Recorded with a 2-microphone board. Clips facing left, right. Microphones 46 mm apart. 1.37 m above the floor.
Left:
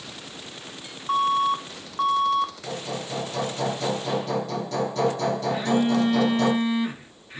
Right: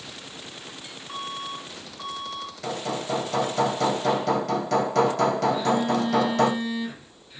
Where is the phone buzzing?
60° left (ahead or behind), 2.5 m.